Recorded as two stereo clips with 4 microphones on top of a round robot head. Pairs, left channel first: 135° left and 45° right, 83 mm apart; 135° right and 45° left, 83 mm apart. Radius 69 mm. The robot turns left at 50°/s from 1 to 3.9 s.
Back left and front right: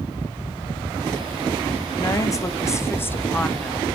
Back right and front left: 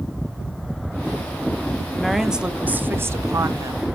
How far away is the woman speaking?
About 1.0 m.